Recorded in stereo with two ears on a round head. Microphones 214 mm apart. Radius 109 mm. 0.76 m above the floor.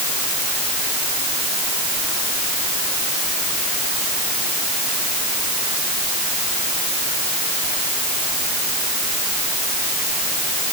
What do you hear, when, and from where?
Only background noise.